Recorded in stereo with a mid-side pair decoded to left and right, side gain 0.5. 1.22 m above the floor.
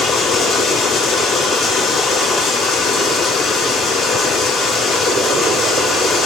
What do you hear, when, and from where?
0.0 s running water: 60° left, 1.1 m